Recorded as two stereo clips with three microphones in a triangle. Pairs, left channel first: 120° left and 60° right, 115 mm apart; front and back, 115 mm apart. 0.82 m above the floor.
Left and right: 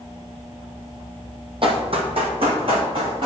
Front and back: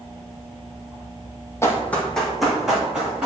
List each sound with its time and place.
1.6 s running footsteps: 55° right, 1.2 m; by 3.3 s 100° right, 3 m